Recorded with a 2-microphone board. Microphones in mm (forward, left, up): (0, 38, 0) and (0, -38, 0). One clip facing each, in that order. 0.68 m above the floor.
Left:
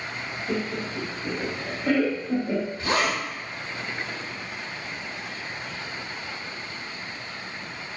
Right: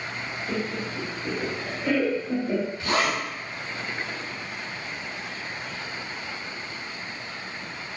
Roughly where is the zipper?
Left.